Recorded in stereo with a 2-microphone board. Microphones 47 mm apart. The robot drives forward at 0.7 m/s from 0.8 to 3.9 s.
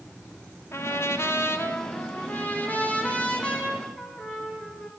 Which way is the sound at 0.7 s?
65° left (ahead or behind).